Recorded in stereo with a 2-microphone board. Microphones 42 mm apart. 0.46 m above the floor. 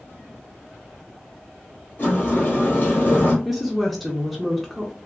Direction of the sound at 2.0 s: 40° left (ahead or behind).